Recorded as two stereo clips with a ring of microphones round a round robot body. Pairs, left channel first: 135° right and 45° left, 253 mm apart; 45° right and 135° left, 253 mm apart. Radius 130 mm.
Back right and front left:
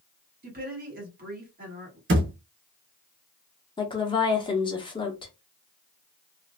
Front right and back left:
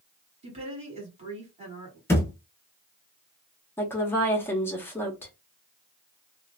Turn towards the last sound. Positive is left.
turn(degrees=-110)